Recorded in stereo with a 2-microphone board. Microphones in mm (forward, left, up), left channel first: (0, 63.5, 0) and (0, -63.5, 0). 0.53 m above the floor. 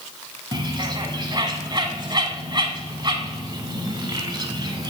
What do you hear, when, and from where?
0.5 s a bird: 35° right (ahead or behind), 1.0 m